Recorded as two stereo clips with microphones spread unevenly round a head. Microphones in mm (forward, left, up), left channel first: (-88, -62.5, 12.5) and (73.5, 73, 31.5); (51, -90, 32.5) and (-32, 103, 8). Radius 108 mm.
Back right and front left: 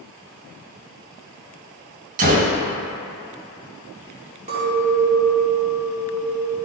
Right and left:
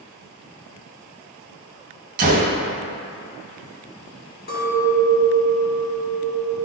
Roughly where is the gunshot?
Ahead left.